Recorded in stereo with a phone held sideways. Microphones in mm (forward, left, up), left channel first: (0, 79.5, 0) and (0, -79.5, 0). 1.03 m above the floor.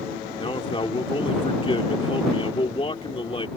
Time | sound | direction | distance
0.4 | a man speaking | 30° left (ahead or behind) | ?